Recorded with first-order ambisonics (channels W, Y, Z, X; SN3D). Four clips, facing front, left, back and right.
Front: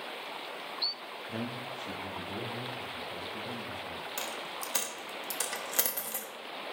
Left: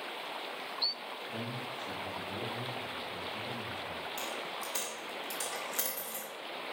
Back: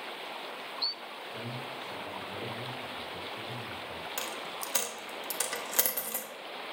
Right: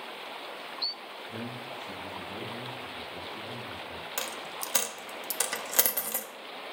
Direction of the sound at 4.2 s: 100° right.